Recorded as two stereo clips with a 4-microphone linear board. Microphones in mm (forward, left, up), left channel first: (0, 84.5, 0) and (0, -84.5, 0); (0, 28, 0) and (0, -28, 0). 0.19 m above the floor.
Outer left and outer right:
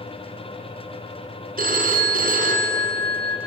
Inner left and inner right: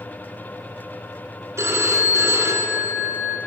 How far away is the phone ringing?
About 1.5 m.